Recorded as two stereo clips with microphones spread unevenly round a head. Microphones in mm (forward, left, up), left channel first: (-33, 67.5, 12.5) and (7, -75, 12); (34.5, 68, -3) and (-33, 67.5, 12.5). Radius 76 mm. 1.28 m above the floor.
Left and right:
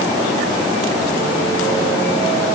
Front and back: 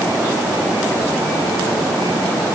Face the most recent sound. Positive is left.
No sound to turn to.